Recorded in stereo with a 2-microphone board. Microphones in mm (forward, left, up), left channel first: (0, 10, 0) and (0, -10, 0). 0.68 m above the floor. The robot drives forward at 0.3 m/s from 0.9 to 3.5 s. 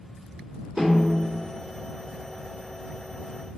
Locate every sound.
0.8 s a snare drum: 45° right (ahead or behind), 1.5 m